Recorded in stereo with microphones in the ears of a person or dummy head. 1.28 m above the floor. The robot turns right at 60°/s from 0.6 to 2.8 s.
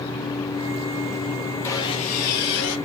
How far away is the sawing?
About 1.2 m.